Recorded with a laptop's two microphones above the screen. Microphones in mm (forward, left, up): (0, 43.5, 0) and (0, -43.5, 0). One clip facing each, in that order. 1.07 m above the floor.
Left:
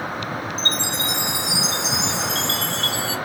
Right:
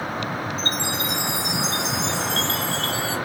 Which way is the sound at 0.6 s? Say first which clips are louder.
Even; 75° left (ahead or behind).